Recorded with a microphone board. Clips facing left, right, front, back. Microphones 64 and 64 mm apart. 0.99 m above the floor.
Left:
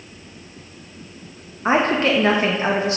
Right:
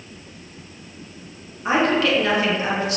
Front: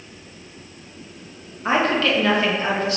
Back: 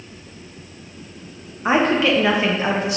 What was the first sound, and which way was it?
A woman speaking, 115° left.